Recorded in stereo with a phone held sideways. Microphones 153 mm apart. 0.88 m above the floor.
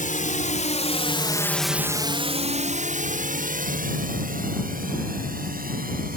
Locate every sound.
0.0 s a drone: 60° left (ahead or behind); by 6.2 s 70° right (ahead or behind)